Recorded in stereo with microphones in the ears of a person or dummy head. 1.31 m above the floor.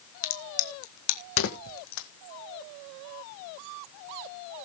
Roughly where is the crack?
Left.